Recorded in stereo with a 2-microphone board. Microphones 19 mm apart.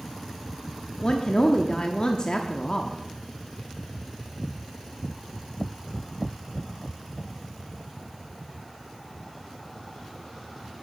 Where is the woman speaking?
45° left (ahead or behind), 1.0 m.